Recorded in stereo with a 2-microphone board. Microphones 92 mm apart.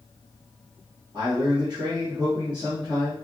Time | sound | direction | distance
1.1 | a man speaking | 55° right (ahead or behind) | 1.9 m